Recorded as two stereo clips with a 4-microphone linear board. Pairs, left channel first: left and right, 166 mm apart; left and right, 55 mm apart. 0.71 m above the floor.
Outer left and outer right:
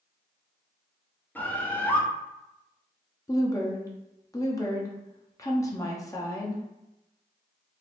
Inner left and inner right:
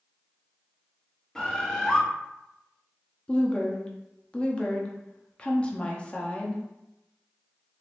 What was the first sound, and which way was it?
A bird, 10° left (ahead or behind).